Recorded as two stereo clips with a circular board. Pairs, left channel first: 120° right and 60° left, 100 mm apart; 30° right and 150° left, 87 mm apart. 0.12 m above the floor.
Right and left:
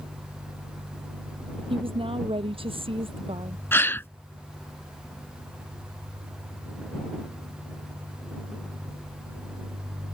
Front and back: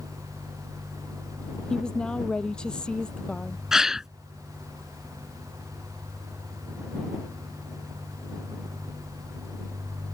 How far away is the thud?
I don't hear a thud.